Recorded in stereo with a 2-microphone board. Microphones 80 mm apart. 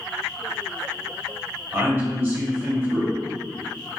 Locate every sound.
1.7 s a man speaking: 25° right (ahead or behind), 1.7 m